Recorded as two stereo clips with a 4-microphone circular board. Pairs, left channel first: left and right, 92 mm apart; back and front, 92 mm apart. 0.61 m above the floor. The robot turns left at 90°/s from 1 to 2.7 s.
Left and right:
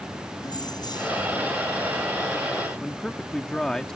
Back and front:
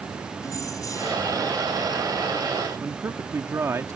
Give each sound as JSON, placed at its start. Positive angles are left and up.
{"t": 0.4, "sound": "keys jangling", "azimuth_deg": 130}
{"t": 2.8, "sound": "a man speaking", "azimuth_deg": 10}